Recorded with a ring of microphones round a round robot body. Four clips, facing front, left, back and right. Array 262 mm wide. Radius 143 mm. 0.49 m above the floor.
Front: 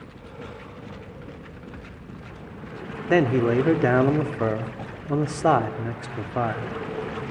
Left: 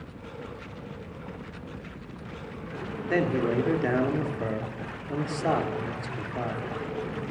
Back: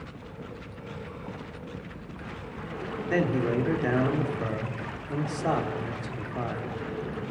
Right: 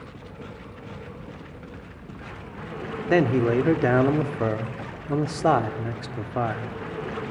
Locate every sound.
3.1 s a man speaking: 40° right, 1.5 m